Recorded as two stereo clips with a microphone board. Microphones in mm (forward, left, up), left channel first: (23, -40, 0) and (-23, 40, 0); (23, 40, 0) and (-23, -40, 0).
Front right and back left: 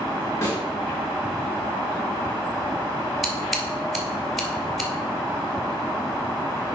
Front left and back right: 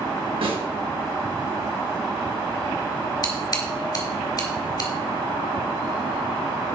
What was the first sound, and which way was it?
A snare drum, 120° right.